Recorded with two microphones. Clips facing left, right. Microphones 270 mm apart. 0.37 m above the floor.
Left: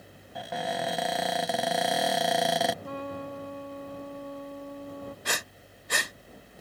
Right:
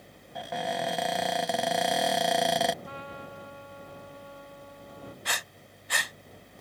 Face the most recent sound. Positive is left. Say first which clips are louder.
# left 4 dB
turn(degrees=50)  # may be behind; listen again after turning